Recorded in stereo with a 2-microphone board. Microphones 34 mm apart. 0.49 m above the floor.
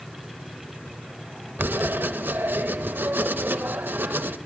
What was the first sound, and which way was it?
Writing, 75° right (ahead or behind).